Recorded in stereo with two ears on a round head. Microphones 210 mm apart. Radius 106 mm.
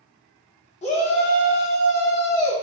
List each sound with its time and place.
0.8 s a shout: 30° left (ahead or behind), 1.2 m